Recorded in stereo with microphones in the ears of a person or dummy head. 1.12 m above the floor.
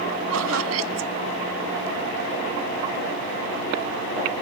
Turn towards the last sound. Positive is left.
turn(degrees=-85)